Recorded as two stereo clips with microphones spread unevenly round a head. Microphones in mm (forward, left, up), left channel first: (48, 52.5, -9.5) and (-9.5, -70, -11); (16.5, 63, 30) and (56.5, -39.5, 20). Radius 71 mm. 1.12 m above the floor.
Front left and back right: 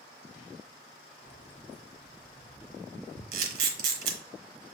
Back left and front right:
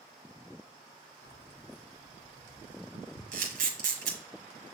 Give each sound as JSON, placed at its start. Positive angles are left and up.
{"t": 1.2, "sound": "keys jangling", "azimuth_deg": 115, "distance_m": 0.6}
{"t": 3.3, "sound": "a camera shutter", "azimuth_deg": -100, "distance_m": 1.2}